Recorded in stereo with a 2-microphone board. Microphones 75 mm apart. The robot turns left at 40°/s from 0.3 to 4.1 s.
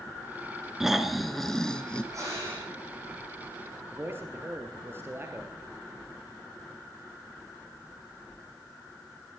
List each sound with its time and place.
0.8 s snoring: 5° right (ahead or behind), 1.2 m; by 2.0 s 15° left (ahead or behind), 1.2 m
2.1 s breathing: 45° right (ahead or behind), 5.5 m; by 2.7 s 20° right (ahead or behind), 5.5 m
3.9 s a man speaking: 25° right (ahead or behind), 2 m; by 5.7 s 30° right (ahead or behind), 2 m